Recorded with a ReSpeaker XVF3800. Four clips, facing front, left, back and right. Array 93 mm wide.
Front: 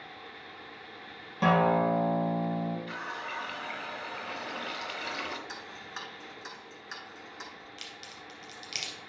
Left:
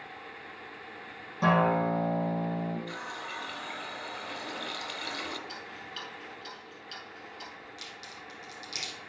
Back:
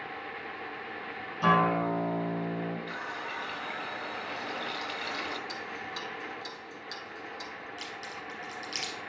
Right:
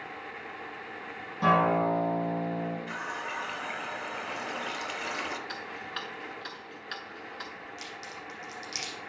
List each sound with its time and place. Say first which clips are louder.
1.4 s a guitar: right 1 dB, front 1 dB; 10° left, 3.5 m
2.9 s a running tap: right 3 dB, even; 75° right, 0.6 m
5.5 s ticking: right 4 dB, back 4 dB; 65° right, 1.0 m
7.8 s a crack: right 4 dB, back 6 dB; 10° right, 3.5 m